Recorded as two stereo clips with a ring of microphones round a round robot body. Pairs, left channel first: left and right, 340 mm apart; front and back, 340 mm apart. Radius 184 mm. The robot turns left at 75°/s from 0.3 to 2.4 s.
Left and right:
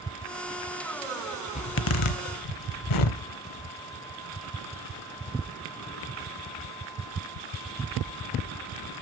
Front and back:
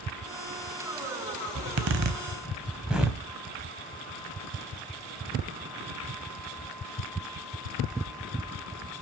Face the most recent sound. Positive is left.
turn(degrees=95)